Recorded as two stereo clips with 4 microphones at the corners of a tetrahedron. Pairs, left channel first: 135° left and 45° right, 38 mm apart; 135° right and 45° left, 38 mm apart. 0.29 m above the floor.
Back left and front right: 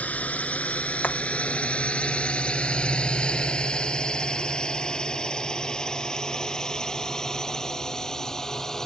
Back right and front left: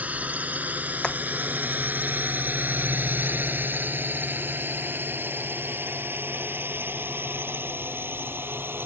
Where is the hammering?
165° left.